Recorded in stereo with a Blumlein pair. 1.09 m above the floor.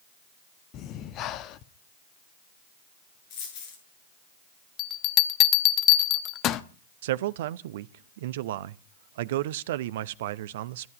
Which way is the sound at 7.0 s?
55° right.